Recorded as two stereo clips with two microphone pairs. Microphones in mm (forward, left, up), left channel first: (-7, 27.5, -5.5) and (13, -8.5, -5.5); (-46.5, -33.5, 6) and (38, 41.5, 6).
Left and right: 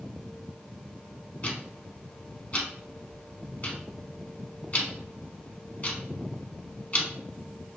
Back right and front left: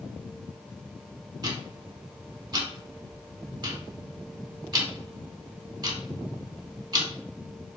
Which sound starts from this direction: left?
Ticking, at 1.4 s.